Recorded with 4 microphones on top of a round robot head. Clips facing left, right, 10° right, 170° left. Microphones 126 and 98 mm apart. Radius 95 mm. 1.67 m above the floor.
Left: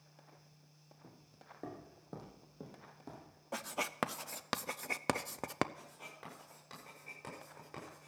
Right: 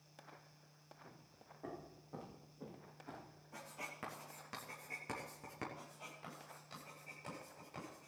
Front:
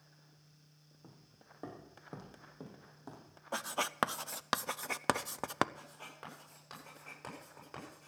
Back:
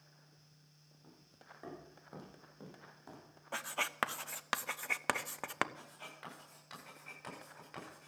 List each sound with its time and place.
1.0 s footsteps: 45° left, 4.5 m; by 3.4 s 60° left, 5 m
3.5 s writing: 60° left, 0.5 m
5.8 s writing: 45° left, 8 m